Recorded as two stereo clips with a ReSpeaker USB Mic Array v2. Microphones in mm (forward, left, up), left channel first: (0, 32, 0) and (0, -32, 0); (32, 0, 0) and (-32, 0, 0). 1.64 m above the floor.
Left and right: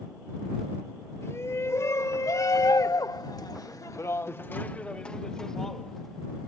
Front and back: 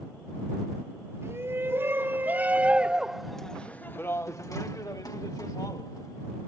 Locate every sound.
1.2 s a shout: 135° left; by 6.5 s straight ahead